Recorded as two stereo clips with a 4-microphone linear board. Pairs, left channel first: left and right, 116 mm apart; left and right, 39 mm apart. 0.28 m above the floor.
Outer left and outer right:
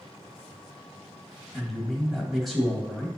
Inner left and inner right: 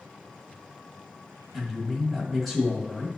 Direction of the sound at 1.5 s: Centre (ahead or behind).